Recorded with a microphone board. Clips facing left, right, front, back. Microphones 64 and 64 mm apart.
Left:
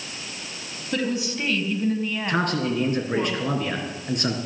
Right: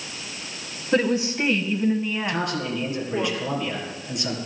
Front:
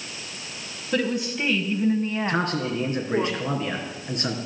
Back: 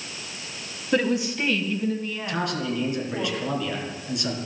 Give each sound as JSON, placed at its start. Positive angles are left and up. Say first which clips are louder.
{"t": 0.9, "sound": "a woman speaking", "louder": "right 5 dB, back 2 dB", "azimuth_deg": -125, "distance_m": 1.5}
{"t": 2.3, "sound": "a man speaking", "louder": "left 3 dB, front 2 dB", "azimuth_deg": 50, "distance_m": 3.5}